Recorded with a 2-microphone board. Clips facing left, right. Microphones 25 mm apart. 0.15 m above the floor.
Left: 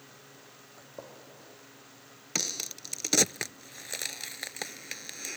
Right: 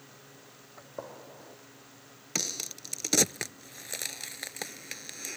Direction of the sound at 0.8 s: 55° right (ahead or behind).